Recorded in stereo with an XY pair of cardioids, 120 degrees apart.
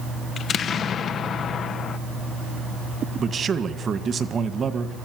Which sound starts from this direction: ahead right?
A man speaking, at 3.2 s.